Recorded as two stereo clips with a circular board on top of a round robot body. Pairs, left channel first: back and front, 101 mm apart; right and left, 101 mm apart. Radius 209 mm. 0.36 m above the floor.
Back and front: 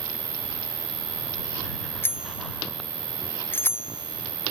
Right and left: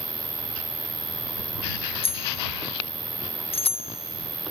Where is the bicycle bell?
110° right.